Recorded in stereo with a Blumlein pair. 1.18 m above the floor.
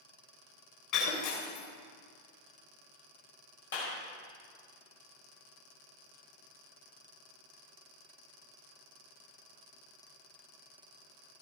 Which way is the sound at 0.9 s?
40° left.